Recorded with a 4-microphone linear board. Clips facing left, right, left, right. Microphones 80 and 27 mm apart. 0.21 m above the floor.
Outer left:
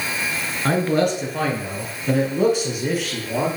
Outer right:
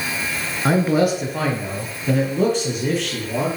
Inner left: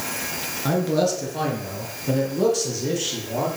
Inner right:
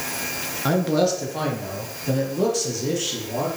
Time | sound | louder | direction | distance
0.7 | a man speaking | outer right 2 dB, inner right 1 dB | 10° right (ahead or behind) | 3.5 m